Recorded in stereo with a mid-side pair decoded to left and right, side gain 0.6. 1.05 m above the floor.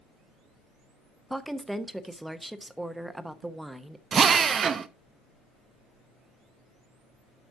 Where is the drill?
35° right, 0.6 m.